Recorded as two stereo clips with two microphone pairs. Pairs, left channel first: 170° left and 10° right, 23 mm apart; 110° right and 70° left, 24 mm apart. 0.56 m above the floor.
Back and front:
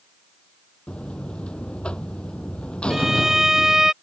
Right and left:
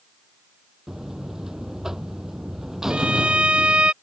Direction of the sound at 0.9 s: 135° left.